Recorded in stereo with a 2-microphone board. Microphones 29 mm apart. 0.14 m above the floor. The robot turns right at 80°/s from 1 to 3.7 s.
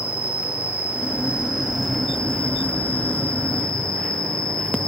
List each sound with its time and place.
0.0 s an insect: 65° right, 6.5 m; by 4.9 s 150° left, 6.5 m